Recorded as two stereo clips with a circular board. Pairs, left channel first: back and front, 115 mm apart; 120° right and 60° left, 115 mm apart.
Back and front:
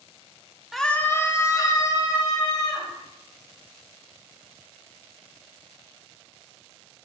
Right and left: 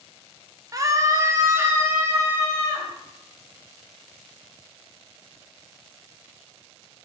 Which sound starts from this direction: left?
A scream, at 0.7 s.